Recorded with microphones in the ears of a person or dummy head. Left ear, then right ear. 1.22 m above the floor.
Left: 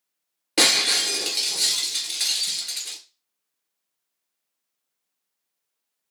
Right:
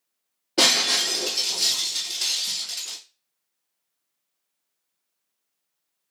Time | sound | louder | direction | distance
0.6 | breaking glass | even | 35° left (ahead or behind) | 1.4 m